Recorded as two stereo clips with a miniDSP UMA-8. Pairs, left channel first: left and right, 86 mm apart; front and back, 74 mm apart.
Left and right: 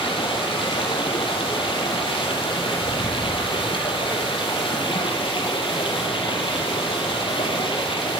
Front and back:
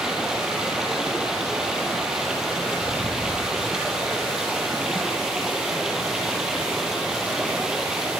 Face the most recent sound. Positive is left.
turn(degrees=95)